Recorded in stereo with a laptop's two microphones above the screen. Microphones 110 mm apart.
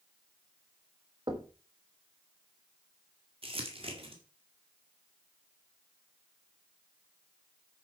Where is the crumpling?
60° right (ahead or behind), 1.8 m.